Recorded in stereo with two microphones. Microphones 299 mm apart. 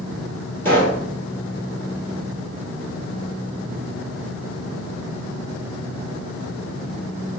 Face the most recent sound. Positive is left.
turn(degrees=5)  # may be behind; listen again after turning